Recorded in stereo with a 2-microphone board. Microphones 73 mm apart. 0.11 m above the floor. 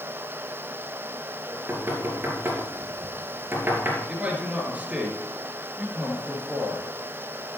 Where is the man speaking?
20° right (ahead or behind), 2.5 m.